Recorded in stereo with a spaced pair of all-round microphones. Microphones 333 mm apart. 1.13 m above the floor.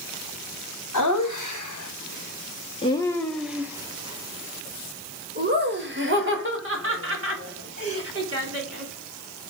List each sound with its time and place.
0.9 s laughter: 60° left (ahead or behind), 1.3 m; by 8.9 s 45° right (ahead or behind), 3.5 m